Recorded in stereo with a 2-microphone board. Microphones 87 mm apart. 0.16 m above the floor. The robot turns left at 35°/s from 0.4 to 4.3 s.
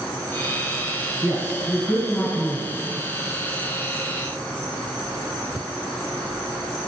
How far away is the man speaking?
About 1.6 m.